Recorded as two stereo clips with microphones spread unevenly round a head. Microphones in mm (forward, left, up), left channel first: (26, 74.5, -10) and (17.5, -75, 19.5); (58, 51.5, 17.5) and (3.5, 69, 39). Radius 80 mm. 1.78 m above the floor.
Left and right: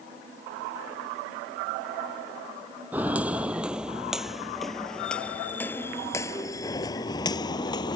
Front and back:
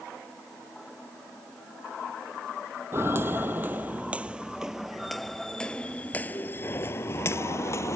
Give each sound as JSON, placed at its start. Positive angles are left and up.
{"t": 2.9, "sound": "footsteps", "azimuth_deg": -165}